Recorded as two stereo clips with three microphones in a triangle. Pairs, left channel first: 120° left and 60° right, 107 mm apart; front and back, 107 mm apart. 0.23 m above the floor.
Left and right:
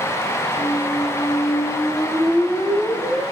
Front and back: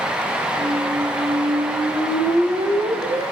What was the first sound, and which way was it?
A squeak, 170° right.